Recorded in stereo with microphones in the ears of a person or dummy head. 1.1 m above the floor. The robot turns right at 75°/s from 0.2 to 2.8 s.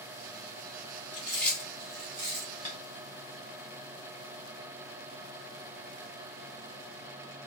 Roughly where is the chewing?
Left.